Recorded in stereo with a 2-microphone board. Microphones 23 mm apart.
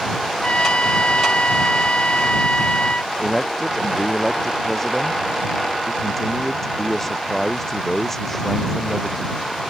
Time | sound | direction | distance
0.4 | a trumpet | 65° left (ahead or behind) | ?
3.2 | a man speaking | 15° left (ahead or behind) | ?